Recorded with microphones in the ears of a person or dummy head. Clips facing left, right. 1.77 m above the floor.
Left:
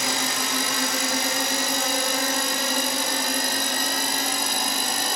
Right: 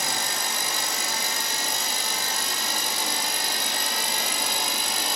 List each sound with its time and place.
0.0 s a drone: 65° left (ahead or behind); by 5.2 s 50° left (ahead or behind)